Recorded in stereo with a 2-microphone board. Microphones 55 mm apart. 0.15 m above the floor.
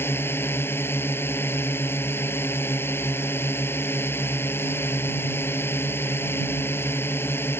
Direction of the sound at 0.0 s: 45° left (ahead or behind).